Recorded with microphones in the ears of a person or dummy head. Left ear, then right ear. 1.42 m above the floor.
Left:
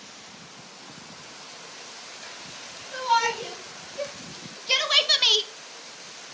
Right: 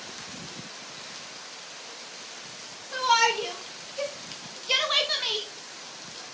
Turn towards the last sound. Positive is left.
turn(degrees=65)  # may be behind; listen again after turning